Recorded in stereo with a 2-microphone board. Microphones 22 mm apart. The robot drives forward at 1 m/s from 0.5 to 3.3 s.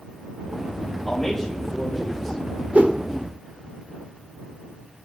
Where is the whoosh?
75° right (ahead or behind), 0.5 m; by 3.0 s 60° right (ahead or behind), 0.6 m.